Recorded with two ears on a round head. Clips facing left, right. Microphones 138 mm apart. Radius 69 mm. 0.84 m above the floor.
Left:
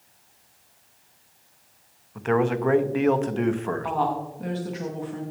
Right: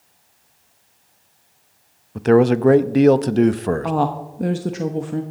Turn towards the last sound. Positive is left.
turn(degrees=-55)  # may be behind; listen again after turning